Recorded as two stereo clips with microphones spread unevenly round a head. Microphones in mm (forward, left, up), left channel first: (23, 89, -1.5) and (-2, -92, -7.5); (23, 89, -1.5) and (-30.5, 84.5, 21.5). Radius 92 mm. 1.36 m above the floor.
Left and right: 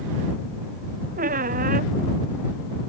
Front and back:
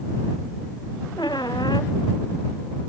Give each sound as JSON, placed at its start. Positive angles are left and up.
{"t": 1.2, "sound": "a squeak", "azimuth_deg": -50}